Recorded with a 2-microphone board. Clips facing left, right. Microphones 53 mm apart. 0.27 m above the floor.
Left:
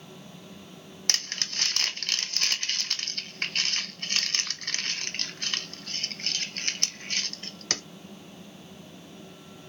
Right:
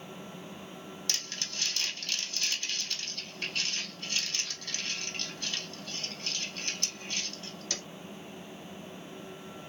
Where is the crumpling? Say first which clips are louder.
Left 7 dB; 60° left (ahead or behind), 0.6 m.